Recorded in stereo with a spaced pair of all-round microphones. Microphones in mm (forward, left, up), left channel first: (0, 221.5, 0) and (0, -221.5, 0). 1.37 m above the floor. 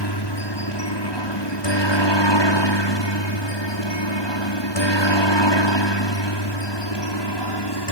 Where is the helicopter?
60° left (ahead or behind).